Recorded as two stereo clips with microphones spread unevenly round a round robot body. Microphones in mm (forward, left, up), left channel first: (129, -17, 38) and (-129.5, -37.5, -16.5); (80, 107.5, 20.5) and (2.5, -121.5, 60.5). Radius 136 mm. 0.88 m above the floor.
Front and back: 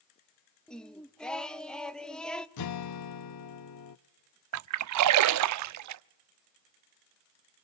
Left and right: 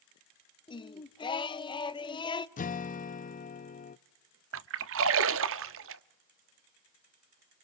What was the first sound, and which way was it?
Singing, 105° left.